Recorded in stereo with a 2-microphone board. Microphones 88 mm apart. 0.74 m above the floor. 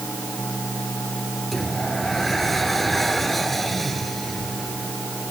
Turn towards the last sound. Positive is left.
turn(degrees=0)  # may be behind; listen again after turning